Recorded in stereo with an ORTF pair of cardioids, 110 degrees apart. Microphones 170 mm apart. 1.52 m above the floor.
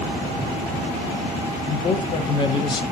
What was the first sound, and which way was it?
A man speaking, 30° left.